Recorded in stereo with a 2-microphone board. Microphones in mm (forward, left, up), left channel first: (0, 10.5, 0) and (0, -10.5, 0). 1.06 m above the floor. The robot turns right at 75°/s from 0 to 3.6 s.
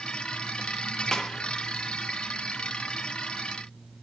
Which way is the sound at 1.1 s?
25° left (ahead or behind).